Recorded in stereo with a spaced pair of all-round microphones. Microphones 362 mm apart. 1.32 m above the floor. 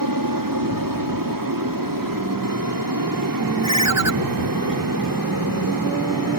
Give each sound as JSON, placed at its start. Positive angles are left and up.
{"t": 0.0, "sound": "an aircraft", "side_deg": -60}
{"t": 3.6, "sound": "a ringtone", "side_deg": -45}